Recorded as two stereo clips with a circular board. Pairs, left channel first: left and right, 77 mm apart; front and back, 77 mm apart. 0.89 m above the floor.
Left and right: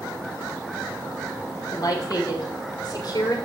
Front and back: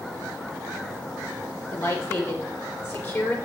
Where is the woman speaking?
50° left, 2.5 m; by 3.4 s 55° left, 3.5 m.